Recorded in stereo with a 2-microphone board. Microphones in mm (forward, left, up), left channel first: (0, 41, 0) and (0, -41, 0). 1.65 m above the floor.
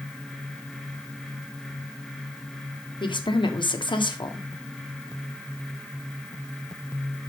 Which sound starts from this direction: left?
A woman speaking, at 3.0 s.